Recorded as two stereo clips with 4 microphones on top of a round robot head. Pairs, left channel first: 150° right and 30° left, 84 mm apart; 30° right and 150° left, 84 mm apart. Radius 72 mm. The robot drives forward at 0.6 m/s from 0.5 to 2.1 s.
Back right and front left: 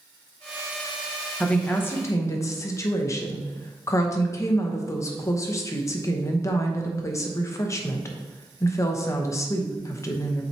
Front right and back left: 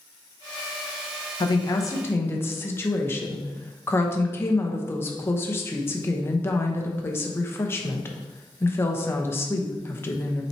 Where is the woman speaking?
70° right, 1.0 m; by 10.4 s 95° right, 0.9 m.